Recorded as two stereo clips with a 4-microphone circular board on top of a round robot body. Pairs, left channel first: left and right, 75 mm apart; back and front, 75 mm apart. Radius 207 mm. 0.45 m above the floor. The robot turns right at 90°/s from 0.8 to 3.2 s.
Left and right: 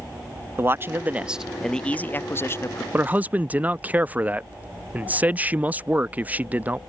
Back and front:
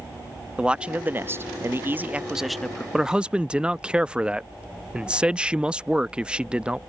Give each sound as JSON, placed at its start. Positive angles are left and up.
{"t": 0.6, "sound": "a man speaking", "azimuth_deg": -65}
{"t": 2.9, "sound": "a man speaking", "azimuth_deg": -80}